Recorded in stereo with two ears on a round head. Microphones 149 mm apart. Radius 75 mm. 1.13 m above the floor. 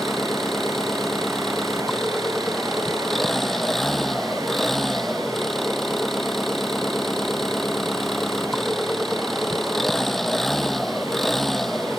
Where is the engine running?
Centre (ahead or behind).